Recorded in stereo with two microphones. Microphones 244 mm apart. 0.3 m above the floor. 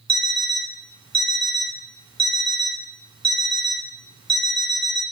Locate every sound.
0.1 s an alarm clock: 20° right (ahead or behind), 1.3 m